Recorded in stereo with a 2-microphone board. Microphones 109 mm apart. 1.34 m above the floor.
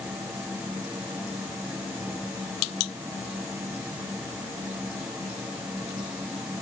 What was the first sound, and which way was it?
Only background noise.